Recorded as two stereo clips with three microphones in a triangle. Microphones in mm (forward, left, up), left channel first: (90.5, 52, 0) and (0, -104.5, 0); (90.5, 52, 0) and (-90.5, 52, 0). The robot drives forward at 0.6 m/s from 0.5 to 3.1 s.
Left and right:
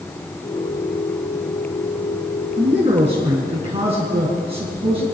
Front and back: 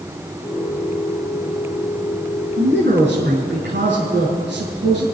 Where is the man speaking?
175° right, 5.5 m.